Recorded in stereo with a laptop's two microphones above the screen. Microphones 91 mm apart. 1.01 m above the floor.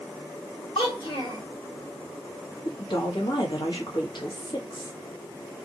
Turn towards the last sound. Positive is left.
turn(degrees=60)  # may be behind; listen again after turning